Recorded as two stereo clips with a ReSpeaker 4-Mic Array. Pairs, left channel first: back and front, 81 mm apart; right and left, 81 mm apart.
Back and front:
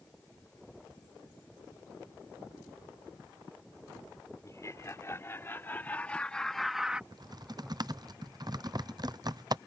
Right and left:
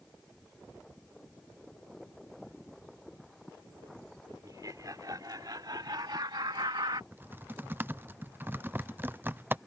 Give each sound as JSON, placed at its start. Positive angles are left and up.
{"t": 4.4, "sound": "laughter", "azimuth_deg": 130}
{"t": 7.1, "sound": "typing on a keyboard", "azimuth_deg": 30}